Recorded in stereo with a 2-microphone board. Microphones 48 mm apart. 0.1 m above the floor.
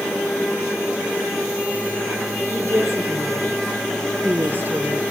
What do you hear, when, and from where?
2.5 s a woman speaking: 65° right (ahead or behind), 4.5 m; by 5.0 s 35° right (ahead or behind), 1.9 m